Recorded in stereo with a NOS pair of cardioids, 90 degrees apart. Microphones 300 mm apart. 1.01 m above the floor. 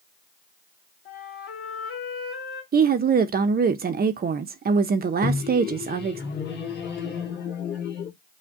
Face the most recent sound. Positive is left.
turn(degrees=35)